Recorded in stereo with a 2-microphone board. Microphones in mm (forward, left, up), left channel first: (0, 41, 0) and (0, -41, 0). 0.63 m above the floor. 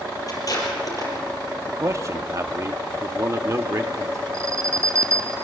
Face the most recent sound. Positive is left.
turn(degrees=-35)  # may be behind; listen again after turning